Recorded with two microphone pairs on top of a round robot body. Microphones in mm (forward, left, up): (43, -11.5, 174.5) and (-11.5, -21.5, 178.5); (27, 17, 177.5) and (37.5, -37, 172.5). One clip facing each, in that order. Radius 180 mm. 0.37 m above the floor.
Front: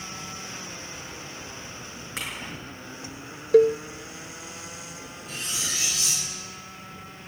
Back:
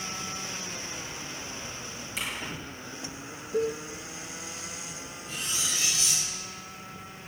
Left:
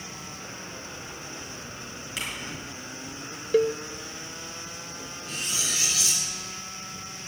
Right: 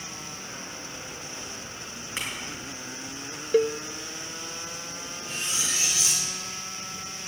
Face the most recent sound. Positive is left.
turn(degrees=-15)